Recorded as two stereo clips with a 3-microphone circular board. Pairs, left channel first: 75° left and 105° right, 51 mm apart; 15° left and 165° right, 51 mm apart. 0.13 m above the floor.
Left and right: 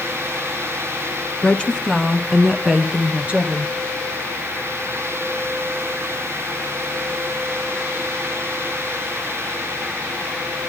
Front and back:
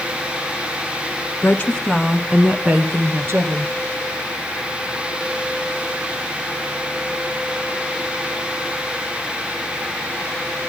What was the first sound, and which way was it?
A woman speaking, 20° left.